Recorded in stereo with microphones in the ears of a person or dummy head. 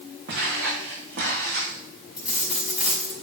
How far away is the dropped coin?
About 5.5 m.